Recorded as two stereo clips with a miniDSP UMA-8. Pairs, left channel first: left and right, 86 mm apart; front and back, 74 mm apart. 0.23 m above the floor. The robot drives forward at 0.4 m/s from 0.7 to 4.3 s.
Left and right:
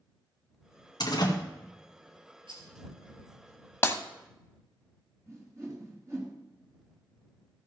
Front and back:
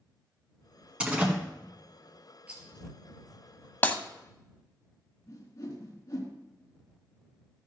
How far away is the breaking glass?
About 0.8 m.